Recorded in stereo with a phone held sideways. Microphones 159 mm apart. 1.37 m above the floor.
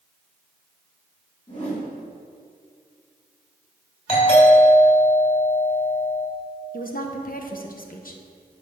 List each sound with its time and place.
1.5 s a whoosh: 45° left (ahead or behind), 3 m
4.1 s a doorbell: 35° left (ahead or behind), 3.5 m
6.7 s a woman speaking: 60° left (ahead or behind), 1.0 m